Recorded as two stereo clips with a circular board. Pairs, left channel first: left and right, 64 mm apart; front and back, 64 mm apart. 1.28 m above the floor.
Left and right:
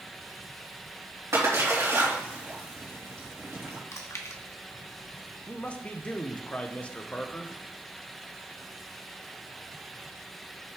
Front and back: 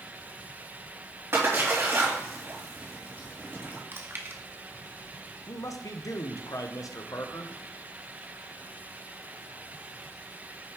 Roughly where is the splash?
Behind right.